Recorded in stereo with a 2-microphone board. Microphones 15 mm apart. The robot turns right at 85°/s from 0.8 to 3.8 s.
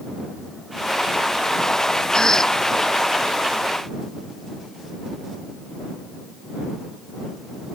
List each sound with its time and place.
2.1 s a cough: 115° left; by 2.6 s 150° left